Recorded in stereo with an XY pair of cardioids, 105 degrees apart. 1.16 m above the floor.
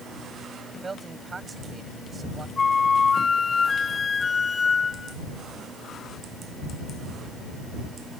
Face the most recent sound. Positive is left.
turn(degrees=35)